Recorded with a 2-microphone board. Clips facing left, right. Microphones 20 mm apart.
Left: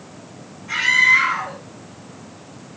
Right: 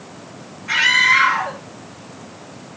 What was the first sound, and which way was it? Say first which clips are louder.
A scream: right 1 dB; 60° right (ahead or behind).